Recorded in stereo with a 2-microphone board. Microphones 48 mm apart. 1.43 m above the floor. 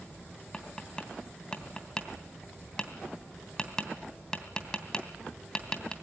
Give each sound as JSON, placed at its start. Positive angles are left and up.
{"t": 0.5, "sound": "tapping", "side_deg": 15, "distance_m": 2.5}